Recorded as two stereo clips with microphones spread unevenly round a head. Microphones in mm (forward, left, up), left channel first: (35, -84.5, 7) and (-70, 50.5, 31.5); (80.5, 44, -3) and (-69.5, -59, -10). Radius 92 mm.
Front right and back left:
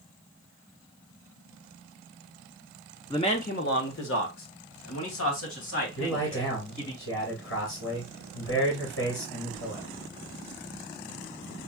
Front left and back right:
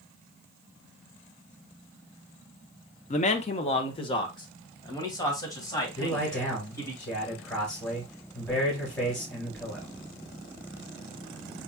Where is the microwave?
I don't hear a microwave.